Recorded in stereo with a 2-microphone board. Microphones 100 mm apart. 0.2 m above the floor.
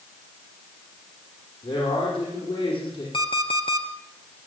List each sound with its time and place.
1.6 s a man speaking: 60° left (ahead or behind), 10 m
3.1 s an alarm clock: 55° left (ahead or behind), 2 m